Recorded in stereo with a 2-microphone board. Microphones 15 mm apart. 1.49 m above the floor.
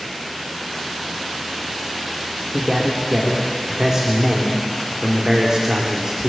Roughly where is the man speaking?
Right.